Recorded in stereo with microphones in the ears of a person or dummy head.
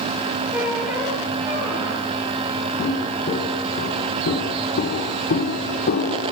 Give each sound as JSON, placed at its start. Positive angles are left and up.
{"t": 0.5, "sound": "a squeak", "side_deg": -5, "distance_m": 4.5}
{"t": 2.8, "sound": "footsteps", "side_deg": 30, "distance_m": 5.5}